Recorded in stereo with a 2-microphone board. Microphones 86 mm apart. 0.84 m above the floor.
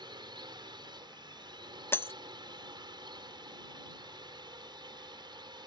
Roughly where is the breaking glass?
Left.